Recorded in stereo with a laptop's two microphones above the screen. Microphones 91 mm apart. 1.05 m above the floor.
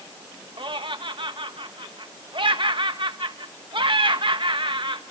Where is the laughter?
65° right (ahead or behind), 1.3 m.